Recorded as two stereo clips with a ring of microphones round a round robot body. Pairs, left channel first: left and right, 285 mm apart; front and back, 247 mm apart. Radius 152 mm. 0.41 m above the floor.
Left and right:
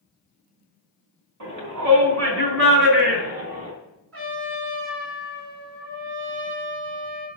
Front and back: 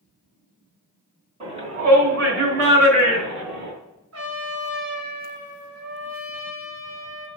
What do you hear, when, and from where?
1.4 s a shout: 110° right, 3 m; by 3.7 s 155° right, 3.5 m
4.1 s a trumpet: 130° right, 3 m